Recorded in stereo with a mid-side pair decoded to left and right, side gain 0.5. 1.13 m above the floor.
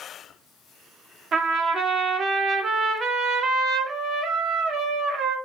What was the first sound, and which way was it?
A trumpet, 50° right.